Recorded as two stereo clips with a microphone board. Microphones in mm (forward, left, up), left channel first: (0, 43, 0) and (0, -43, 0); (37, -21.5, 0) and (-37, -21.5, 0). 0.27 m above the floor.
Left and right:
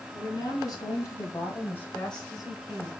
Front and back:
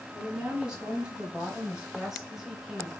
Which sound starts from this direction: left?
A woman speaking, at 0.1 s.